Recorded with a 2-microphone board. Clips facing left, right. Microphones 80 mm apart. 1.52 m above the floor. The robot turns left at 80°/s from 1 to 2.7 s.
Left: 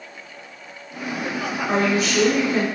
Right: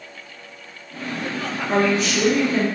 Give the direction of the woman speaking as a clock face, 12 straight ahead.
9 o'clock.